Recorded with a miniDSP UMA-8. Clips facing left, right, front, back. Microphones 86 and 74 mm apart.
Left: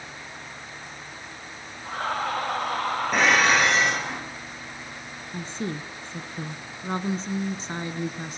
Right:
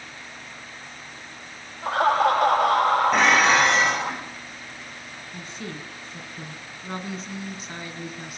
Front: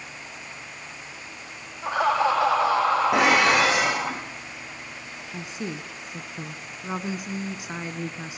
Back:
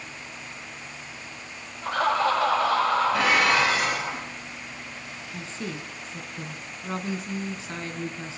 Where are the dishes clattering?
Straight ahead, 7 m.